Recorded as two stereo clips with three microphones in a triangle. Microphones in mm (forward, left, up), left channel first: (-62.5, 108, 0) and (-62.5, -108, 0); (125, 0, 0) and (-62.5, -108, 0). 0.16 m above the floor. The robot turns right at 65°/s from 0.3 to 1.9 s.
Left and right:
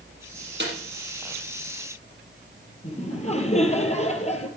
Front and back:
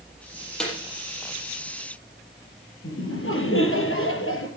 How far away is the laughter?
About 3.5 m.